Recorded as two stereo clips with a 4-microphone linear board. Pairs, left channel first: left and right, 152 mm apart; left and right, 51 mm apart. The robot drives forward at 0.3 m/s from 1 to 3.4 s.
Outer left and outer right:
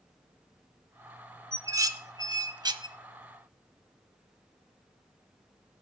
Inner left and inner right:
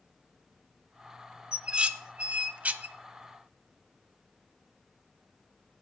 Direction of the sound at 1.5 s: 20° right (ahead or behind).